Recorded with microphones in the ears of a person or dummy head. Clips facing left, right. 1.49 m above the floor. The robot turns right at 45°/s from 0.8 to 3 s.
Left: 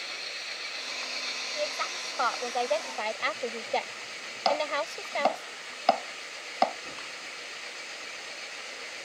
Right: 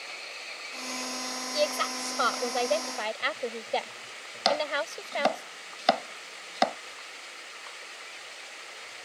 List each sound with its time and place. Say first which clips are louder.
0.0 s an engine running: left 1 dB; 15° left; by 9.1 s 115° left
1.5 s a woman speaking: right 6 dB; 80° right; by 5.5 s 10° right
4.5 s chopping: even; 25° right (ahead or behind)